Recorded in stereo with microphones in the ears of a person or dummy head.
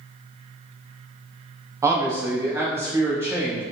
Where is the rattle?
I don't hear a rattle.